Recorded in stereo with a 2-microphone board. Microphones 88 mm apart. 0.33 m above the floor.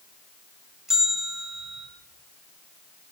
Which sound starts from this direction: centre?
A bell, at 0.9 s.